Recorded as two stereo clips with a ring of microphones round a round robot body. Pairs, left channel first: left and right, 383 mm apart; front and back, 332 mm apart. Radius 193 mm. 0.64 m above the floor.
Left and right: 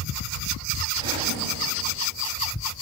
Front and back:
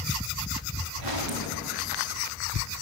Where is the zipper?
140° right, 6.5 m.